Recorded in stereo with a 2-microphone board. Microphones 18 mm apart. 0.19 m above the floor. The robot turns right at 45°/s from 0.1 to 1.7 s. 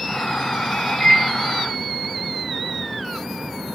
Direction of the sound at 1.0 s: 10° left (ahead or behind).